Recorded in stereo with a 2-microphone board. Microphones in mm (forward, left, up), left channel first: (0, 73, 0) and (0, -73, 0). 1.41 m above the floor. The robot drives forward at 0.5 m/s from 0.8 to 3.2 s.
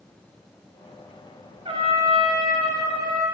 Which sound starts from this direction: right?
A trumpet, at 1.6 s.